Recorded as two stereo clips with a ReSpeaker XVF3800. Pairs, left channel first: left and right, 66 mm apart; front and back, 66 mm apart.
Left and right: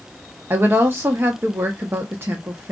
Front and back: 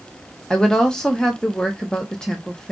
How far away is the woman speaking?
About 0.8 m.